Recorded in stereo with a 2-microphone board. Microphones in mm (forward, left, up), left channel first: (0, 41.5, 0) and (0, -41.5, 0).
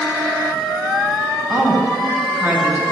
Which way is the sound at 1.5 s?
20° right (ahead or behind).